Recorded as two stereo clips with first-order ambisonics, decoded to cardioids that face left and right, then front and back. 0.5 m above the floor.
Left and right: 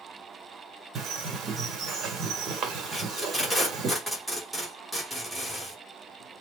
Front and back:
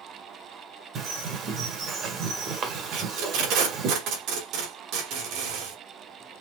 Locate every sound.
0.9 s a bird: 135° right, 1.4 m
2.9 s tape being pulled: 175° right, 2 m